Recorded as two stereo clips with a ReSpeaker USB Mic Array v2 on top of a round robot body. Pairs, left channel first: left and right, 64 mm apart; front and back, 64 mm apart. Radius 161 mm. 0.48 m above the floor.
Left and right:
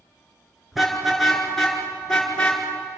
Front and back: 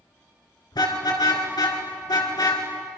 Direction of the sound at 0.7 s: Straight ahead.